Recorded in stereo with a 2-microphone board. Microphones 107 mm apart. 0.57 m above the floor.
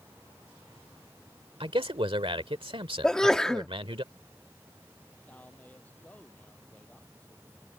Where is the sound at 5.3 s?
15° left (ahead or behind).